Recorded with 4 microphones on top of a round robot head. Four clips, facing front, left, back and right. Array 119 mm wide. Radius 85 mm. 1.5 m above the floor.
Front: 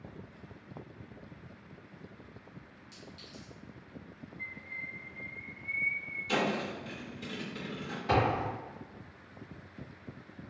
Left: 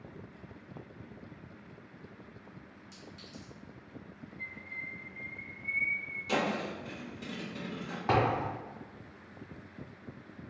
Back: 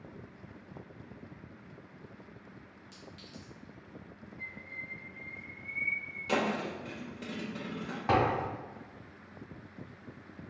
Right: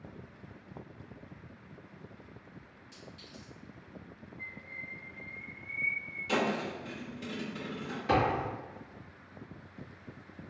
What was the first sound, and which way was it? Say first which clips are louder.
A clink: even, even; 115° left.